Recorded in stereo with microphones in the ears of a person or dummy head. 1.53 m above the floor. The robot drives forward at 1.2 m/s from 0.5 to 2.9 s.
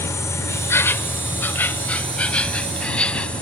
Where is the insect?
15° left (ahead or behind); by 3.4 s 5° left (ahead or behind).